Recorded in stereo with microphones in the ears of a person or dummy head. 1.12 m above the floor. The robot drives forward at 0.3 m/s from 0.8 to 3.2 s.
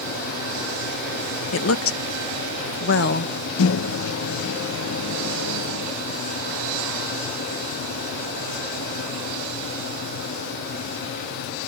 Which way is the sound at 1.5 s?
70° left (ahead or behind).